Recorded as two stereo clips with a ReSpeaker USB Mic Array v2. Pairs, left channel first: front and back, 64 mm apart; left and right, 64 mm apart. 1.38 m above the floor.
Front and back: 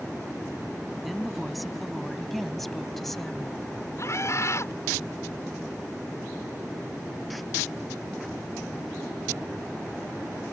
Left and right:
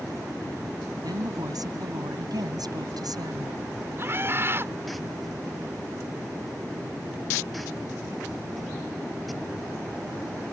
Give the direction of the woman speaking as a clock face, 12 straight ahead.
3 o'clock.